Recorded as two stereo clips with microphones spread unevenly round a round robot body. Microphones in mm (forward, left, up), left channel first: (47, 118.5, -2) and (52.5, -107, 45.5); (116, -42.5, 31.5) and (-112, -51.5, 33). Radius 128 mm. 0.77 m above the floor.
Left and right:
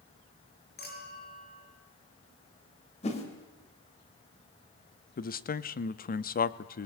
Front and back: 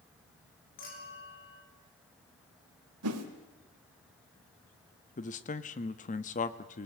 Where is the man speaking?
55° left, 1.0 m.